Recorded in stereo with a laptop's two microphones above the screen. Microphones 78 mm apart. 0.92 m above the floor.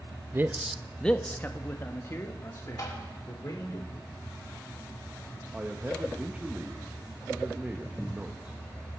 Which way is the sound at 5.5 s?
20° right (ahead or behind).